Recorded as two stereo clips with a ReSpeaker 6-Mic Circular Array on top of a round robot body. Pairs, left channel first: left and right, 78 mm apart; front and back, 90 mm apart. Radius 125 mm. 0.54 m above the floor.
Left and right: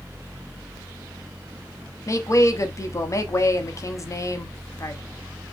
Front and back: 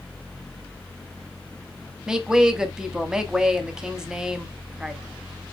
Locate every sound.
2.1 s a woman speaking: 100° left, 1.1 m